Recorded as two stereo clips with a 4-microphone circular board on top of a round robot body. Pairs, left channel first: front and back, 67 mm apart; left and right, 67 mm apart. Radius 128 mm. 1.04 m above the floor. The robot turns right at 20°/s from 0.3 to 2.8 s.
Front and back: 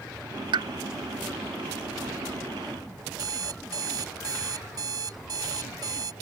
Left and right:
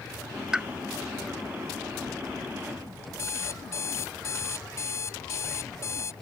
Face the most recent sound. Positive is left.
turn(degrees=140)